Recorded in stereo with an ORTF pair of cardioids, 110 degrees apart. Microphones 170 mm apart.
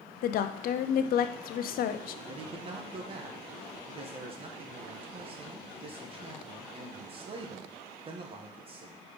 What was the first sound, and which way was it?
A woman speaking, 65° left.